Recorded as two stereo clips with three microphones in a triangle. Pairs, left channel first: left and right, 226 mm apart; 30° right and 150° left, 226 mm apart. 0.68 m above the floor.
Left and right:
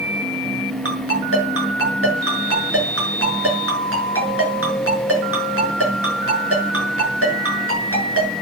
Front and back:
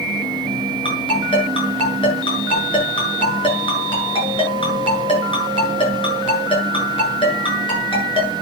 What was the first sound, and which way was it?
A ringtone, 95° right.